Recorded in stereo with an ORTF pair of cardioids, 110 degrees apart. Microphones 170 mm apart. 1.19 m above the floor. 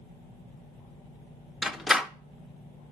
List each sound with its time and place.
1.6 s a door slam: straight ahead, 0.7 m